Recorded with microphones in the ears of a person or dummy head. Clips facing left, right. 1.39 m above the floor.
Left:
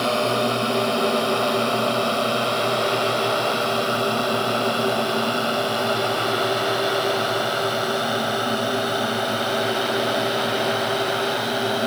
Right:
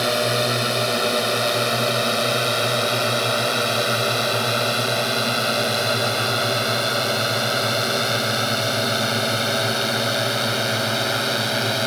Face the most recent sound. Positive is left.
turn(degrees=-30)  # may be behind; listen again after turning